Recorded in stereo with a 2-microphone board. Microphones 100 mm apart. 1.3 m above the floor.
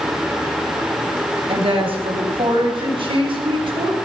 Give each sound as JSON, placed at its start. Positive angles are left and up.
{"t": 1.5, "sound": "a woman speaking", "side_deg": -75, "distance_m": 6.5}